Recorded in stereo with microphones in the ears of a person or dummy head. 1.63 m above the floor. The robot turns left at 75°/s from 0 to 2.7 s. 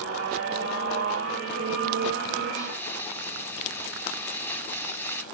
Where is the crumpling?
25° left (ahead or behind), 4 m; by 5.2 s 15° left (ahead or behind), 4 m.